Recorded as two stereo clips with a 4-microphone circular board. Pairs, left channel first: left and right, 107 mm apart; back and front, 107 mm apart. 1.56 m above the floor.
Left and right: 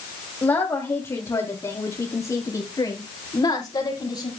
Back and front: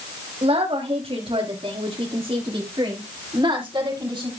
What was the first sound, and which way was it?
A woman speaking, 25° left.